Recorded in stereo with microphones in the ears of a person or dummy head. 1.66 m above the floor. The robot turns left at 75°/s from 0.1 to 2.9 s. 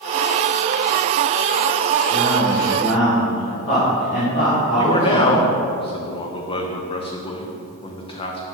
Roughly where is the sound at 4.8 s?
Left.